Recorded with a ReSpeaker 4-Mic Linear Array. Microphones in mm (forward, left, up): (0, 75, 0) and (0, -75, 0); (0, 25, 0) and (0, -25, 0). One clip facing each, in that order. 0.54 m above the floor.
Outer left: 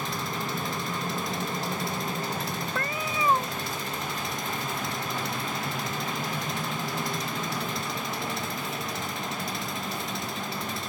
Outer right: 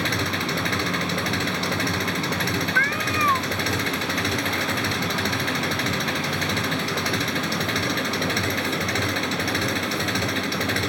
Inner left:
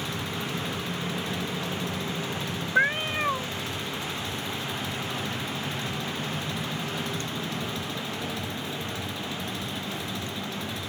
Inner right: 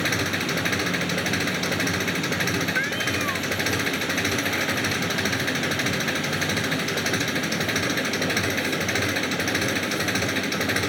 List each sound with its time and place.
0.0 s an engine running: 75° right (ahead or behind)
2.8 s a cat meowing: 20° left (ahead or behind)